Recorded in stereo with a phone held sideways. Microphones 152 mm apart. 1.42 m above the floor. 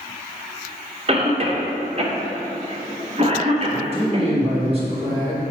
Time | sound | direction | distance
1.1 | a cough | 40° right (ahead or behind) | 1.1 m
3.7 | a man speaking | 40° right (ahead or behind) | 2 m